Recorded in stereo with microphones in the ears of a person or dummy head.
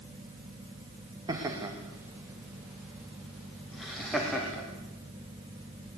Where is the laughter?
20° right (ahead or behind), 2.5 m; by 4.6 s centre (ahead or behind), 4 m.